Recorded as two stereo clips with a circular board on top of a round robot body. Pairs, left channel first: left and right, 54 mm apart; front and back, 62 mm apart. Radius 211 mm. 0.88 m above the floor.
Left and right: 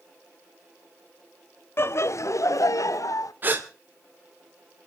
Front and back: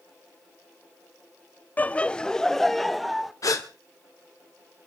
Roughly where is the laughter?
Ahead left.